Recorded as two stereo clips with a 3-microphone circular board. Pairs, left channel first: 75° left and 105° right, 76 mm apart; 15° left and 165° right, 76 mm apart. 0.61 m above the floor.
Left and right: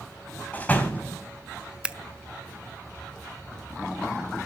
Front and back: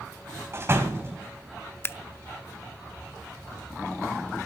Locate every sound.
0.5 s a door slam: 140° left, 2.5 m
1.8 s scissors: 35° right, 0.6 m